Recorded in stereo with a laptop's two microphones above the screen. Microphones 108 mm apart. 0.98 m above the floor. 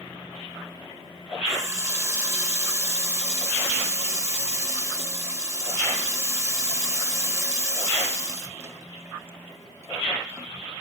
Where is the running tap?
25° right (ahead or behind), 1.1 m.